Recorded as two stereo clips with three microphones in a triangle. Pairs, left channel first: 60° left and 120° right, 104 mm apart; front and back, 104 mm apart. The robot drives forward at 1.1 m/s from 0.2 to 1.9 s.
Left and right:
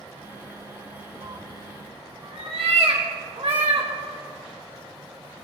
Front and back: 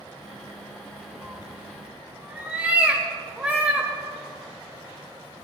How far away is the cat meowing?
About 2 m.